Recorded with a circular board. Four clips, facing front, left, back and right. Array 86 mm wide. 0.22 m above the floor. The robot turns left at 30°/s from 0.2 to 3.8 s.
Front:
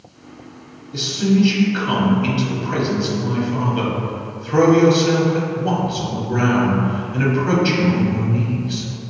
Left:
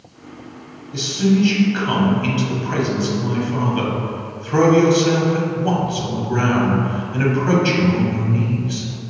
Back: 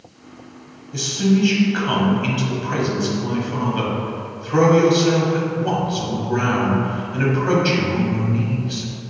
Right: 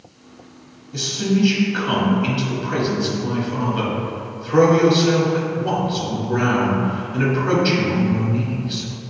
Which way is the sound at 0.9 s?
175° right.